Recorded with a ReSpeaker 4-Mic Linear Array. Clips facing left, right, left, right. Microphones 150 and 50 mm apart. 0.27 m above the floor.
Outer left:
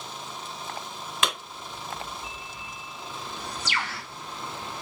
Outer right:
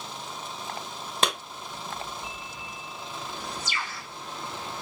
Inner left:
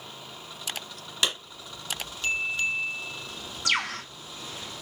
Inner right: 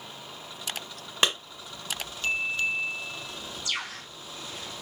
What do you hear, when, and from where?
1.2 s a clap: 35° right (ahead or behind), 1.4 m
3.6 s a bird: 75° left (ahead or behind), 0.6 m